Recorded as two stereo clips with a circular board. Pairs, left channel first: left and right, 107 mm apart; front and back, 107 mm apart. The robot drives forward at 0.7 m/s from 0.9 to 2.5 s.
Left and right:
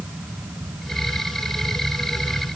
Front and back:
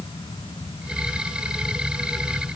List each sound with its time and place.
Only background noise.